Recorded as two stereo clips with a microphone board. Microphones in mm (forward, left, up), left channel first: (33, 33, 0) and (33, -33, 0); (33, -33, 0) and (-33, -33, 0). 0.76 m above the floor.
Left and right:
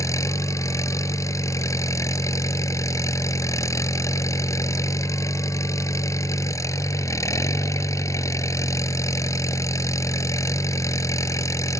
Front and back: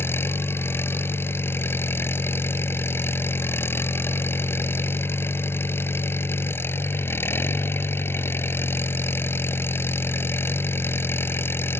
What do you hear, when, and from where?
0.0 s an engine running: 55° left